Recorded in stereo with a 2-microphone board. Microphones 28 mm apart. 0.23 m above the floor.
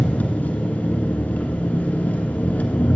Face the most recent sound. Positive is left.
turn(degrees=65)  # may be behind; listen again after turning